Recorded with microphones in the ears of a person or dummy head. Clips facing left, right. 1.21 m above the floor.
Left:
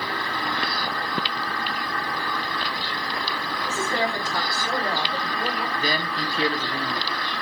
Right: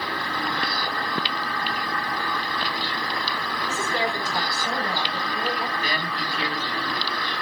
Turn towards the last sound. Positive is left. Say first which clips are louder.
# left 2 dB
turn(degrees=30)  # may be behind; listen again after turning